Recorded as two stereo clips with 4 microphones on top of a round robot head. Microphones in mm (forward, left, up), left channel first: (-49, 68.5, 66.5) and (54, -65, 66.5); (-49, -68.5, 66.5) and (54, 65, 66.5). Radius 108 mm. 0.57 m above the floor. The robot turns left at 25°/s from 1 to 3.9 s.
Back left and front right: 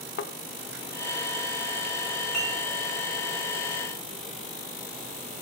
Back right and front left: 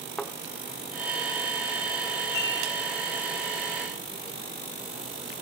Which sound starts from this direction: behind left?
A thud, at 0.2 s.